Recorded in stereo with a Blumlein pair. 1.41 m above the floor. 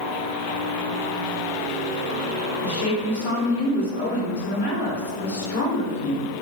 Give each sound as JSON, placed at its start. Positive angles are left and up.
{"t": 2.6, "sound": "a woman speaking", "azimuth_deg": 65, "distance_m": 2.0}